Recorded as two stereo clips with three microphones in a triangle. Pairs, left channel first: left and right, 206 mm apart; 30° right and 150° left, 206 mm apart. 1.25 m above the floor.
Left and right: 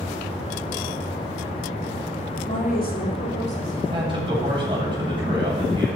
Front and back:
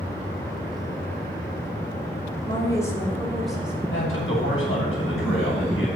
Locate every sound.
2.5 s a woman speaking: 35° left, 3.5 m; by 3.8 s 65° left, 4.5 m
3.9 s a man speaking: 25° right, 9 m